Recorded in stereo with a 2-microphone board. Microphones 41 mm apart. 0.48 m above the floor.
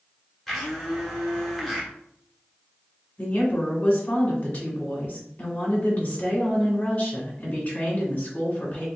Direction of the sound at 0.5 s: 5° left (ahead or behind).